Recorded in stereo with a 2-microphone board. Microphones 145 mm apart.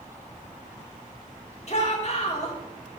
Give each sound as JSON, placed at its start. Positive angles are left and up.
{"t": 1.7, "sound": "a shout", "side_deg": 50, "distance_m": 2.0}